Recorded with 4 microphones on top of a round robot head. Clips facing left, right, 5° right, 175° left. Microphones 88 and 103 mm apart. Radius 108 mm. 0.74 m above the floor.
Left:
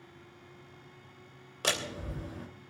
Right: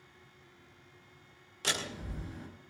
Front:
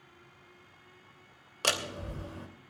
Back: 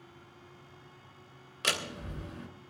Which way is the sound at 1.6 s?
50° left.